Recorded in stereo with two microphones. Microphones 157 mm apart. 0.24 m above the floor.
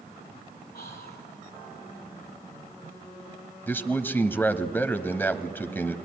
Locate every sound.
0.7 s whispering: 80° left, 7 m
3.7 s a man speaking: 15° left (ahead or behind), 1.0 m